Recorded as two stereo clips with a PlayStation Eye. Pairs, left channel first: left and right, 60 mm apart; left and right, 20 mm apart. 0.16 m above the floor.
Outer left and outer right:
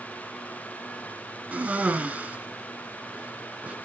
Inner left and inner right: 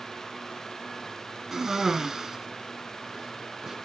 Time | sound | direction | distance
1.5 | a cough | 25° right (ahead or behind) | 1.7 m